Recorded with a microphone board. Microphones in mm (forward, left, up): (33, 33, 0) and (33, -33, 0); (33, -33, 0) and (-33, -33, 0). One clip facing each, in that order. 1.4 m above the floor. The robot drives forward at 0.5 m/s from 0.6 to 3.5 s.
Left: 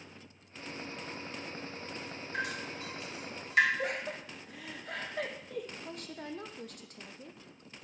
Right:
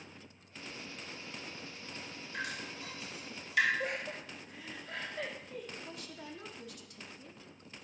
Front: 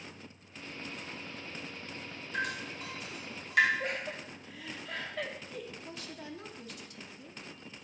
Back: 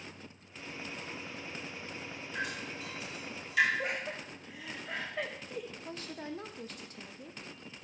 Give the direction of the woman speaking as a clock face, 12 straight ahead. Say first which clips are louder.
Left 4 dB, back 3 dB; 8 o'clock.